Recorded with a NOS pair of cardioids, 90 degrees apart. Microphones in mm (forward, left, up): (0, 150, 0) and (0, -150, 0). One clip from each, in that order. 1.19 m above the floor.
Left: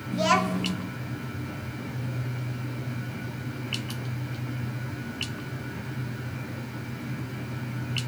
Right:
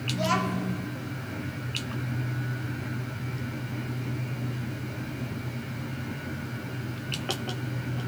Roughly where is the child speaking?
Ahead left.